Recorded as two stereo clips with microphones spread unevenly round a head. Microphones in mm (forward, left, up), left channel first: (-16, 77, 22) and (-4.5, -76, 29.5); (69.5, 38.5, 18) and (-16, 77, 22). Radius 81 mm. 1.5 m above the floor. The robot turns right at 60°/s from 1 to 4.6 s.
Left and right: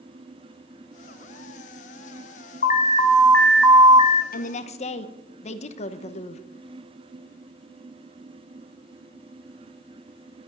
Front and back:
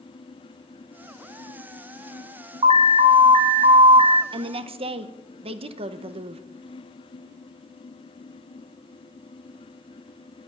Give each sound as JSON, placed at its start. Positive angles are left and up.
{"t": 2.6, "sound": "an alarm", "azimuth_deg": 130, "distance_m": 1.7}
{"t": 4.3, "sound": "a woman speaking", "azimuth_deg": 125, "distance_m": 1.2}